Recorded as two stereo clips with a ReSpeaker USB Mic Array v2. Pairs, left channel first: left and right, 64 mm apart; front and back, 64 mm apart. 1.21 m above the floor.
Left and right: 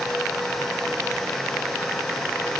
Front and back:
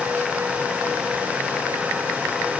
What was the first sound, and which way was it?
Only background noise.